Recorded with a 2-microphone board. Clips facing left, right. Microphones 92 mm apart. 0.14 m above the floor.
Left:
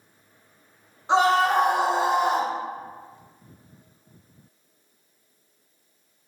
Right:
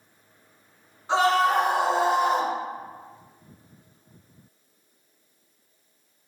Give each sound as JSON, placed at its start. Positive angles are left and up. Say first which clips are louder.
{"t": 1.1, "sound": "a scream", "louder": "left 1 dB", "side_deg": 20, "distance_m": 1.2}